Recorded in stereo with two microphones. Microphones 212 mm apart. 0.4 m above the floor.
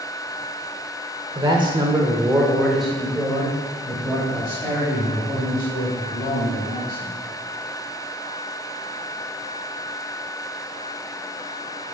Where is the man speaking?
25° right (ahead or behind), 1.5 m; by 7.1 s 20° left (ahead or behind), 5 m.